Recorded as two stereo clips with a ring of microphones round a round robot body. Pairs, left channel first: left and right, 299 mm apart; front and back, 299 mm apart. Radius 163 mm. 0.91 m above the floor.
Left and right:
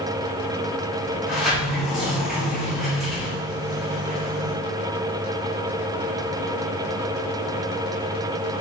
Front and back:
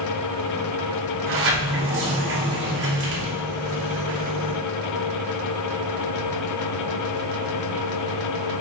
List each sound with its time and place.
1.3 s a sliding door: straight behind, 0.8 m